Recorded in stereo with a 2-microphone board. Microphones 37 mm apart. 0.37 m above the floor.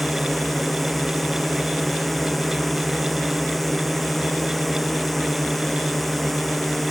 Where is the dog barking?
No dog barking in this recording.